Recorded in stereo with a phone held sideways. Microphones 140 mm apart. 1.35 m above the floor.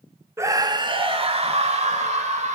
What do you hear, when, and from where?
0.4 s a scream: 20° right (ahead or behind), 1.8 m; by 2.5 s 55° right (ahead or behind), 4.5 m